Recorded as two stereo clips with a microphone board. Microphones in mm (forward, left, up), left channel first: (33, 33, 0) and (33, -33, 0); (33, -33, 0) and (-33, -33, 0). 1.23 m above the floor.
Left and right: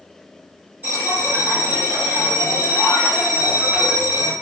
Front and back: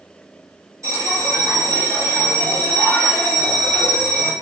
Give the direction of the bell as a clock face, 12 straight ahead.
5 o'clock.